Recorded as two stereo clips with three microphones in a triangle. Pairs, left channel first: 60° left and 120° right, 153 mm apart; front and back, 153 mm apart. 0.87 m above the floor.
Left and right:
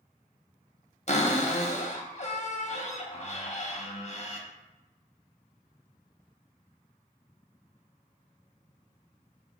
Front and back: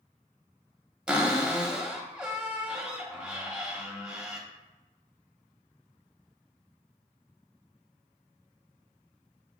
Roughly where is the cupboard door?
Left.